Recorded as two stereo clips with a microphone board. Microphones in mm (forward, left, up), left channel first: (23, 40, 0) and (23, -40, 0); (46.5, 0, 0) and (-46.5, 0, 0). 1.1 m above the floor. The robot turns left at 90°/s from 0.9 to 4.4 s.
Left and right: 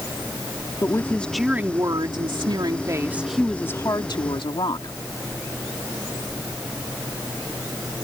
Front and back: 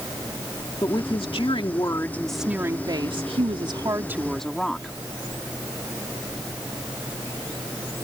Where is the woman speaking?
40° left; by 5.0 s 85° left.